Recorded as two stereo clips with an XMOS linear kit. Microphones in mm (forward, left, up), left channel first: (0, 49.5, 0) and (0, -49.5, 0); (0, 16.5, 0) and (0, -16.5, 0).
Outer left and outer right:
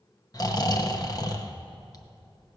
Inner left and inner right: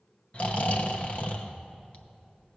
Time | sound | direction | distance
0.3 | snoring | 40° left (ahead or behind) | 0.8 m